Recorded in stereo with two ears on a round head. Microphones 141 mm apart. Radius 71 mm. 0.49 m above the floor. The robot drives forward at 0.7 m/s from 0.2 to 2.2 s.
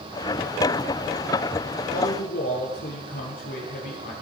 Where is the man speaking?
70° left (ahead or behind), 8.5 m.